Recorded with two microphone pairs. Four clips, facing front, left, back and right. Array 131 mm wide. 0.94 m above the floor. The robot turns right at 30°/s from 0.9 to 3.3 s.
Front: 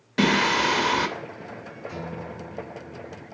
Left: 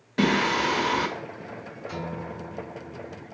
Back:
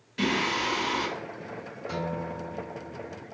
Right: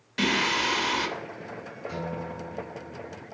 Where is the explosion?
I don't hear an explosion.